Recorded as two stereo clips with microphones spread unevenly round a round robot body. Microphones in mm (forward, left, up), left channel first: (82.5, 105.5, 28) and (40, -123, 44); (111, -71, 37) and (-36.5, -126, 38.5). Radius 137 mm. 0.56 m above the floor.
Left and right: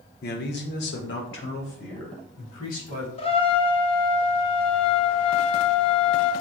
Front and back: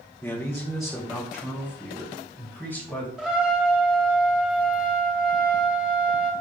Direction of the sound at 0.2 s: 95° left.